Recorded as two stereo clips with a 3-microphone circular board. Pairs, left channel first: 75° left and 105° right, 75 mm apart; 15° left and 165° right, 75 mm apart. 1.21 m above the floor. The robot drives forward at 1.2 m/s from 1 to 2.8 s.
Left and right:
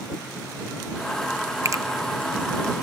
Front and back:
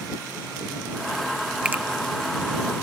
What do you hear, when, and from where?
1.6 s a finger snap: 95° right, 0.5 m; by 1.8 s 125° right, 0.6 m